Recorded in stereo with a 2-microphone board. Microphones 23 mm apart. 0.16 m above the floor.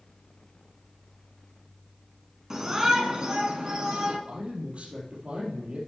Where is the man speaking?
60° right (ahead or behind), 3.5 m.